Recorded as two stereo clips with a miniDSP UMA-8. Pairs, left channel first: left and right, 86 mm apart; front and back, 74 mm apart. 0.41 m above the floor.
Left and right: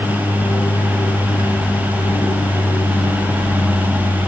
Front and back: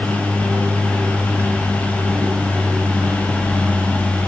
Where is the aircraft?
130° left; by 4.3 s 110° left.